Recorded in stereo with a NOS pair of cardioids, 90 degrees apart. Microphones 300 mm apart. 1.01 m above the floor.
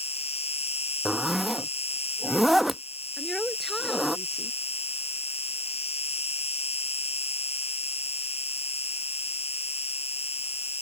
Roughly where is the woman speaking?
Ahead.